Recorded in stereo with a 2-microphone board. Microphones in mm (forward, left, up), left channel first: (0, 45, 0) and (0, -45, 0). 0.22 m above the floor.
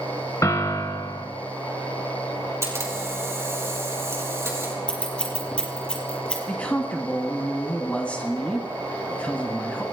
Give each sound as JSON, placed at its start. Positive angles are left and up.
{"t": 0.4, "sound": "a piano", "side_deg": 40, "distance_m": 1.6}
{"t": 2.6, "sound": "a camera shutter", "side_deg": -30, "distance_m": 5.0}
{"t": 4.9, "sound": "scissors", "side_deg": 10, "distance_m": 4.5}
{"t": 6.5, "sound": "a man speaking", "side_deg": 15, "distance_m": 1.6}